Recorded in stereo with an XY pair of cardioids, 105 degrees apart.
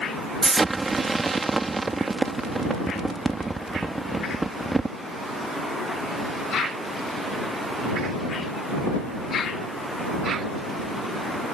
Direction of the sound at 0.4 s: 20° right.